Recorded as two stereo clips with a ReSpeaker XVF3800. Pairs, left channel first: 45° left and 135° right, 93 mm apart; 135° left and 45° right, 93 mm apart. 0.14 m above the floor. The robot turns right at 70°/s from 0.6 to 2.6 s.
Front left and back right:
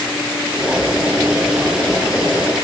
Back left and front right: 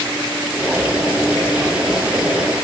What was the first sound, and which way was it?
Only background noise.